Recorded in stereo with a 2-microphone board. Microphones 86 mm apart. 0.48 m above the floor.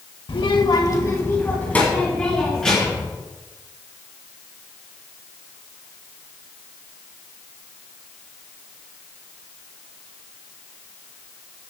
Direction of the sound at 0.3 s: 75° left (ahead or behind).